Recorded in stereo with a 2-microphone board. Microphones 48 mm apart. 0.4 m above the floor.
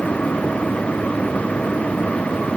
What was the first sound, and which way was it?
Only background noise.